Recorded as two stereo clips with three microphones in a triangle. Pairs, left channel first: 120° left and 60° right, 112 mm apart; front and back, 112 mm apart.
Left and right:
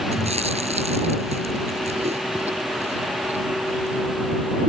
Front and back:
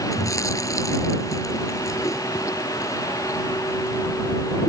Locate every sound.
0.1 s chewing: 60° right